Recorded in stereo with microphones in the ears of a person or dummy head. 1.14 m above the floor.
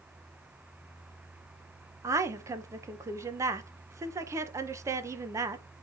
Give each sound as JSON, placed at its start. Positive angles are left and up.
{"t": 2.0, "sound": "a woman speaking", "side_deg": -15, "distance_m": 0.7}